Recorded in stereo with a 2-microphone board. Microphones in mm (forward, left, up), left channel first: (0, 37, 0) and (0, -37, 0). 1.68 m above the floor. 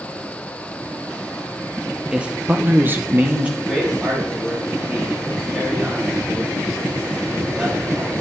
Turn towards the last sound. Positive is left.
turn(degrees=-5)  # may be behind; listen again after turning